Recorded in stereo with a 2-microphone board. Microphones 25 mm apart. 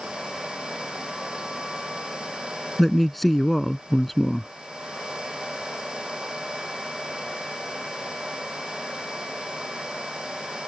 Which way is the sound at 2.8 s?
5° left (ahead or behind).